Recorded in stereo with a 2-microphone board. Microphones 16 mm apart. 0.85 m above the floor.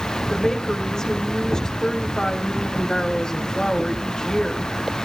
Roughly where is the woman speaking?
Left.